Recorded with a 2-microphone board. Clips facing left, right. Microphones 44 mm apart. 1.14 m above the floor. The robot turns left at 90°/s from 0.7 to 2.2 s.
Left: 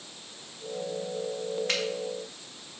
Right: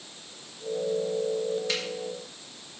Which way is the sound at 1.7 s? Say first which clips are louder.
Left 1 dB; 45° left (ahead or behind).